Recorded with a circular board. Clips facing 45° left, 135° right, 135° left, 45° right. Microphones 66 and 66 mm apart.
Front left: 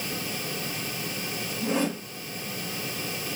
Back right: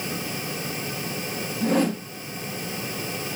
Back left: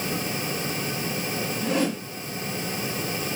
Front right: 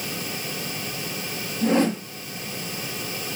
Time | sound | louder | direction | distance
1.6 | a whoosh | back right 5 dB, front right 6 dB | 100° right | 1.5 m